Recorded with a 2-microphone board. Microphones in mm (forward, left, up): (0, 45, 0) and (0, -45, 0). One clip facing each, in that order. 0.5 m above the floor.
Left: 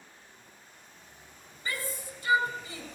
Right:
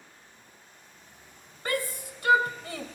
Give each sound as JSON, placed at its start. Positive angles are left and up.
{"t": 1.6, "sound": "a shout", "side_deg": -65, "distance_m": 2.5}